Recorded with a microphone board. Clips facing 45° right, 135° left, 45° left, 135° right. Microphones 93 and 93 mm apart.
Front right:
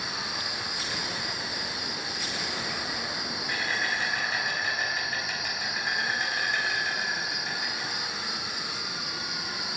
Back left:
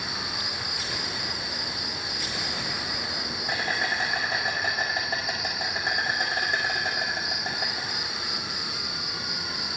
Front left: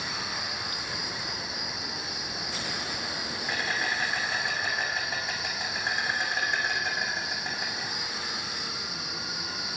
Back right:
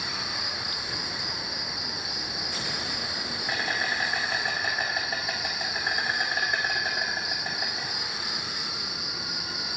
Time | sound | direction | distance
0.0 | an insect | 145° left | 1.9 m